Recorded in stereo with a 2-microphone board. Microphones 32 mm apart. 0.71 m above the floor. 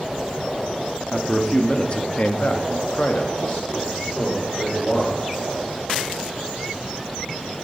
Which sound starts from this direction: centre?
A man speaking, at 1.1 s.